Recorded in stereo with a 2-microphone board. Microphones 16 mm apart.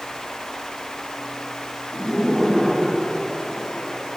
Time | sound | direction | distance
1.9 | laughter | 35° left (ahead or behind) | 8.5 m